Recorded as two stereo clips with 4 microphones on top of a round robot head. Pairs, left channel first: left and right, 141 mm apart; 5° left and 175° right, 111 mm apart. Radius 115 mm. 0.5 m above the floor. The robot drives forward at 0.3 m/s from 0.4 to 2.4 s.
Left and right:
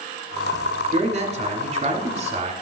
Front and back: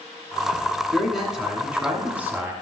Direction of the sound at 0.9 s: 80° right.